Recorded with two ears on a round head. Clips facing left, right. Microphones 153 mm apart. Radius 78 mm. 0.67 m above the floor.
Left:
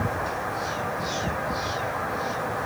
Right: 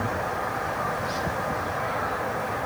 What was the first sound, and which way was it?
Only background noise.